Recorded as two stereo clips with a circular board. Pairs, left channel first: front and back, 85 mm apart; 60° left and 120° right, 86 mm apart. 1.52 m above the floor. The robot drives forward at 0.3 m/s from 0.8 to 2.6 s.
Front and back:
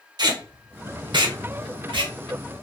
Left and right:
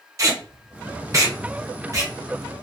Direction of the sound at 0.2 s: 165° right.